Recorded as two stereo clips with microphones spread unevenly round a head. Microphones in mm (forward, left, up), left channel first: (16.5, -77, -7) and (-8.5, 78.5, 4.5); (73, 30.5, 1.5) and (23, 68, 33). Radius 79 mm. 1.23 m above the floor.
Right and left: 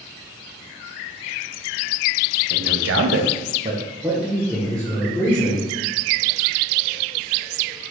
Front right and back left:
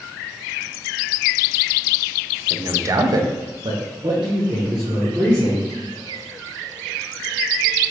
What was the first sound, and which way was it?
A man speaking, 85° left.